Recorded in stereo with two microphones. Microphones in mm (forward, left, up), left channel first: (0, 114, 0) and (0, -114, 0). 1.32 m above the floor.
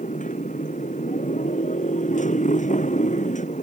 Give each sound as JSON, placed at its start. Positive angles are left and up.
{"t": 0.0, "sound": "a motorcycle", "side_deg": 35}